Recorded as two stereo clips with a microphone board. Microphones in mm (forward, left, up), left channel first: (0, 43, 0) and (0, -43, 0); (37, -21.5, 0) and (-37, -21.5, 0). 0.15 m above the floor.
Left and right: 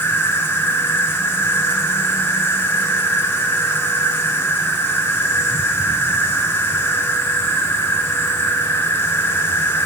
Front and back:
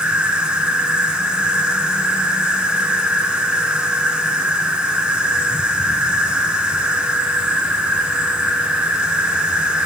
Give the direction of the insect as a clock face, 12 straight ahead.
8 o'clock.